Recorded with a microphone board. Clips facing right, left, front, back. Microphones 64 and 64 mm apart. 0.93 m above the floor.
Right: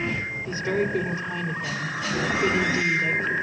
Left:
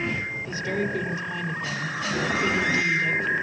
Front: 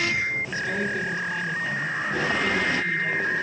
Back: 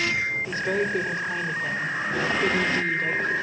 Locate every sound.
0.5 s a woman speaking: 145° right, 3 m